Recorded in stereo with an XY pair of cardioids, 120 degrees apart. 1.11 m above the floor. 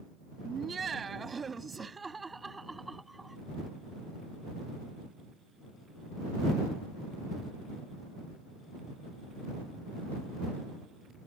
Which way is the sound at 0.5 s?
35° right.